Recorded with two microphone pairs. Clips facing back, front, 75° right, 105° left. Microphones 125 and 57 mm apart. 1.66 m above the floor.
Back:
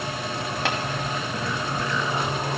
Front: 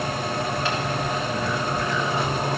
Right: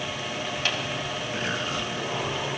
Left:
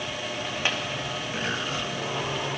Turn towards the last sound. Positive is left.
turn(degrees=175)